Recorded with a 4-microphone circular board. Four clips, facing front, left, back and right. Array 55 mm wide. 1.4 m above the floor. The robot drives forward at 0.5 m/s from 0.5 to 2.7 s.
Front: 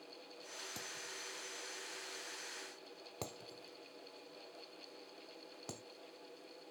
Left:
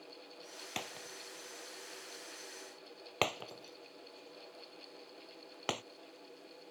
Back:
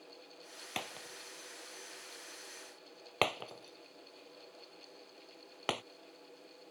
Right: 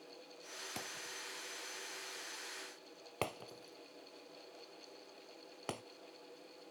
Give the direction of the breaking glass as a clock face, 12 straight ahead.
7 o'clock.